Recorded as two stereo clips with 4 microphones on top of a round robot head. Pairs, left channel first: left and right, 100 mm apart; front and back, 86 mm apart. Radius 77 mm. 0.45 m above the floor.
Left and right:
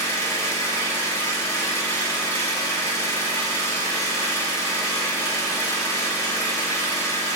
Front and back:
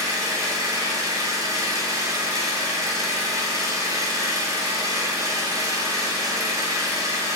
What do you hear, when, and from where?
0.0 s an engine running: 140° left, 0.9 m